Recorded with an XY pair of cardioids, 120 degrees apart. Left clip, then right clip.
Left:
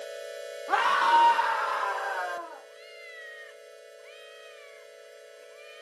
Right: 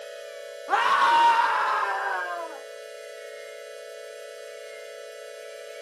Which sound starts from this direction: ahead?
A scream, at 0.7 s.